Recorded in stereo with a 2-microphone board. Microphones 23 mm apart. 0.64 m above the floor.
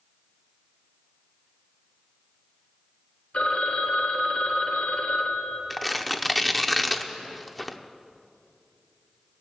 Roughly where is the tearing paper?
Centre.